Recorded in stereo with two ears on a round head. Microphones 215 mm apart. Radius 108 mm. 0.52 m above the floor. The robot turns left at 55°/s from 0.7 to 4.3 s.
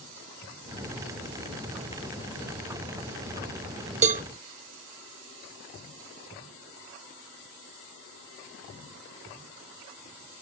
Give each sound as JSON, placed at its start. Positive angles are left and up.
{"t": 4.0, "sound": "a cowbell", "side_deg": -30, "distance_m": 0.6}